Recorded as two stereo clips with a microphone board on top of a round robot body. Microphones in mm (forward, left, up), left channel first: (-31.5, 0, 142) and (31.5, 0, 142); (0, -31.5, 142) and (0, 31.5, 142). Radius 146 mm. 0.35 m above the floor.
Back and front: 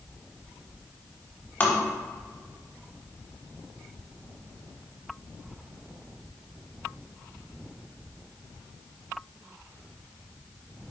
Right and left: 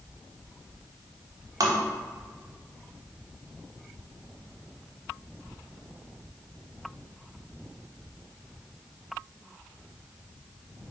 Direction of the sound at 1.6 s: 120° left.